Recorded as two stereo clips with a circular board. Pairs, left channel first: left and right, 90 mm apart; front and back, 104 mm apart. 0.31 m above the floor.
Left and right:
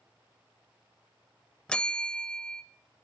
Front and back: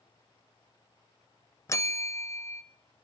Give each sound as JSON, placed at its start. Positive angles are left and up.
{"t": 1.7, "sound": "a bell", "azimuth_deg": 20, "distance_m": 0.6}